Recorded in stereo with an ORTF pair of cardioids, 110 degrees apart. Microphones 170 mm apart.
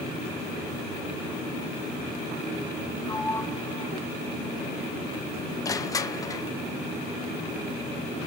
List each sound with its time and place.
3.1 s a sliding door: 25° left, 0.8 m
5.7 s crushing: 20° left, 0.5 m